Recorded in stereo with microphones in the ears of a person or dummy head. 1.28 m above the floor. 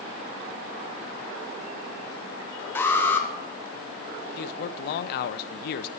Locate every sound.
2.8 s an alarm: 10° left (ahead or behind), 0.5 m
4.4 s a man speaking: 55° left (ahead or behind), 0.6 m